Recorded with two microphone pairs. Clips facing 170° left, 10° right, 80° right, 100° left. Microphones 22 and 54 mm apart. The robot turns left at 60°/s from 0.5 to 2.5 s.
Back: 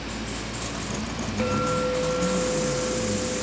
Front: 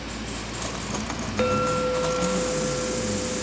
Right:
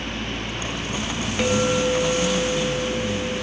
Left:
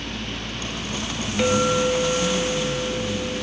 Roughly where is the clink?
Ahead.